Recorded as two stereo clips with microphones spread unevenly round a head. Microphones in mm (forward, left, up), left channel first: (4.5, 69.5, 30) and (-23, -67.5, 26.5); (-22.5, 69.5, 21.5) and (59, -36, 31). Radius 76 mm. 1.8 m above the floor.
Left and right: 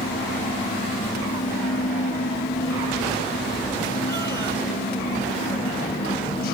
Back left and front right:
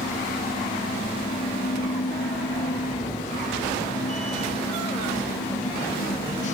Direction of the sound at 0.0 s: 95° left.